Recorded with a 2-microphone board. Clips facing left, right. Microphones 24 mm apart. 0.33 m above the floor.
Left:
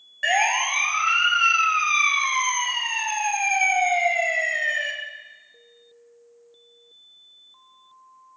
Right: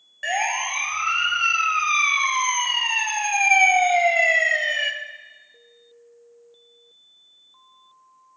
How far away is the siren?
About 3.5 m.